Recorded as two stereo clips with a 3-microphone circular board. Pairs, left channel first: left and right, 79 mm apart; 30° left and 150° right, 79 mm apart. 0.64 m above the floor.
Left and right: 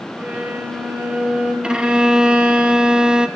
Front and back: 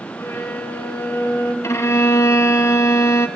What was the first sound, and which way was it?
A violin, 20° right.